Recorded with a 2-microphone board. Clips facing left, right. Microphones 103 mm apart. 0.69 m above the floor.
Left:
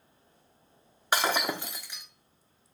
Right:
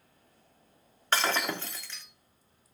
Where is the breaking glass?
10° left (ahead or behind), 0.8 m.